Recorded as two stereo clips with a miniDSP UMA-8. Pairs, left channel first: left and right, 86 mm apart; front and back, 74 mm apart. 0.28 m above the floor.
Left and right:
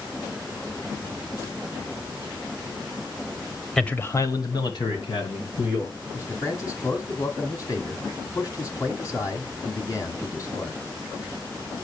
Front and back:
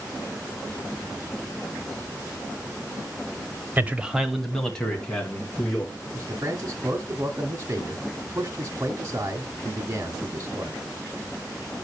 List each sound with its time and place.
3.8 s a man speaking: 165° left, 1.0 m; by 5.9 s 70° left, 3.5 m
6.1 s a man speaking: 130° left, 1.7 m